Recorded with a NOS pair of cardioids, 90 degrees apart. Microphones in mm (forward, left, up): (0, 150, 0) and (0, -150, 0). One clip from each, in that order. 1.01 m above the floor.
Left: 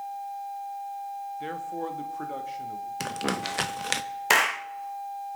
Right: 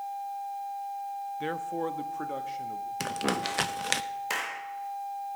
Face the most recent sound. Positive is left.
turn(degrees=55)